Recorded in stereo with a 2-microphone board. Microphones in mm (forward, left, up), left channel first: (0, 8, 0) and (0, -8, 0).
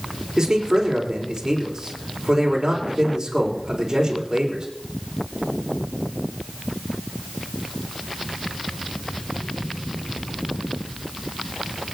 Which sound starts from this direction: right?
A man speaking, at 0.4 s.